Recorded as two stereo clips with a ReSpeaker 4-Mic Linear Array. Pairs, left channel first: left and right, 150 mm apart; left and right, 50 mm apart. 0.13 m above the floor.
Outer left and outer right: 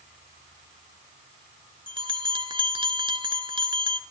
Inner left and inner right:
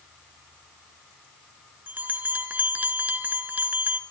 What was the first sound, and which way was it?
A bell, 35° right (ahead or behind).